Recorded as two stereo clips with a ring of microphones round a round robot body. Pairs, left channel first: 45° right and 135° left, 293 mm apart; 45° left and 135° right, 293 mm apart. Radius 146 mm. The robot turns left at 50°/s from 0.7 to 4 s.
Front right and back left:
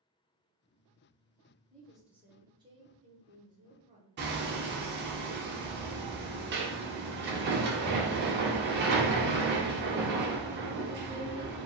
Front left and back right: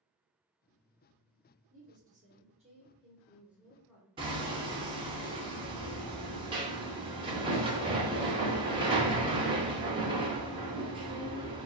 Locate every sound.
1.7 s a woman speaking: 125° right, 0.8 m; by 5.1 s 120° left, 0.8 m
4.2 s hammering: 160° left, 0.5 m